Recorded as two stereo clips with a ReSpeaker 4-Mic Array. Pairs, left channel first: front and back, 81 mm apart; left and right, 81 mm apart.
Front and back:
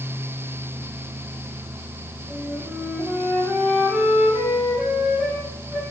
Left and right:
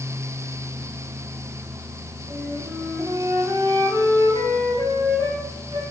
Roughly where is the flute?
Behind right.